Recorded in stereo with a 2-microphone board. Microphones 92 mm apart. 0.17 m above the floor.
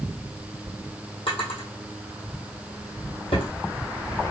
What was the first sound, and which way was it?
A drawer, 85° left.